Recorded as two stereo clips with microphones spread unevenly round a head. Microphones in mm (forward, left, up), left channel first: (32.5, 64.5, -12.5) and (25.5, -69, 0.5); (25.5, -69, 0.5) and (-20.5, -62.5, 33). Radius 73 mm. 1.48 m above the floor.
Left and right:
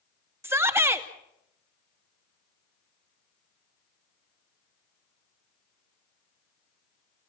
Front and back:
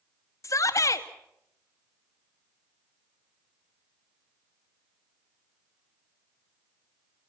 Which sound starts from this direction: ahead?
A shout, at 0.4 s.